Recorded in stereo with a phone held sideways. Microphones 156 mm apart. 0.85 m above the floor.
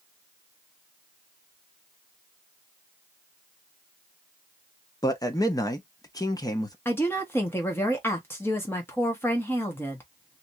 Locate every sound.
5.0 s a man speaking: 25° left (ahead or behind), 1.0 m
6.8 s a woman speaking: 15° left (ahead or behind), 1.5 m